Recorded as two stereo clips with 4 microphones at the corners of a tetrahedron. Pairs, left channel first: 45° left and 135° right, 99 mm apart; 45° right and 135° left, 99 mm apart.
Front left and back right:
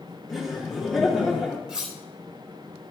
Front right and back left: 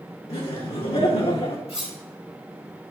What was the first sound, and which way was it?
Laughter, 50° right.